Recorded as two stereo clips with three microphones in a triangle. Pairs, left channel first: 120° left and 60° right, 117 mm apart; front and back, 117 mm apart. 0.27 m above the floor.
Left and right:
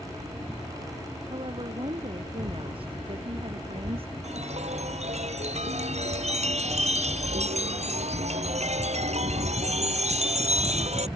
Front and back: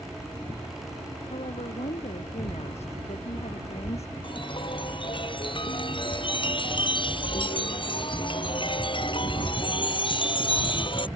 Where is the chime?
45° right.